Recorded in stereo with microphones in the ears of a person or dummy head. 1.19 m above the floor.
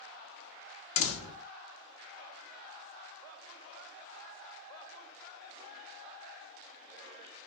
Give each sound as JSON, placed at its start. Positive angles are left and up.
{"t": 1.0, "sound": "a door slam", "side_deg": 75, "distance_m": 0.5}